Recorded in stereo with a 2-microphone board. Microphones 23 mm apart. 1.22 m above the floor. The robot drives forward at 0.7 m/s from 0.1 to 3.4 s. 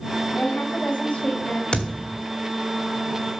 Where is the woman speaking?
80° left, 2 m; by 1.6 s 60° left (ahead or behind), 2.5 m.